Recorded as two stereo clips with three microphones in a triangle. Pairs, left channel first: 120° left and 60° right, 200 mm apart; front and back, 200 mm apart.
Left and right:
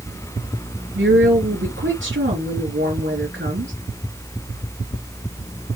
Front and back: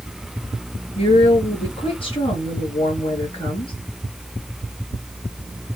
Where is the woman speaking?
60° right, 4 m.